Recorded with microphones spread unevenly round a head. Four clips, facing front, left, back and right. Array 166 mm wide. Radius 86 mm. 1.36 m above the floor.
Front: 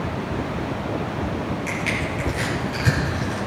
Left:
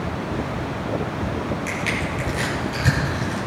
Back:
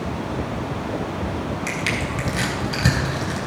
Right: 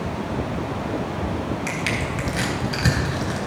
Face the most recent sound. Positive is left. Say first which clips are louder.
# even, even
turn(degrees=-175)